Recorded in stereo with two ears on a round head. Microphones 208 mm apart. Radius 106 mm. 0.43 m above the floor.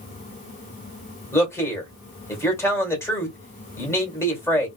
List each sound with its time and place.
1.3 s a man speaking: 10° left (ahead or behind), 1.8 m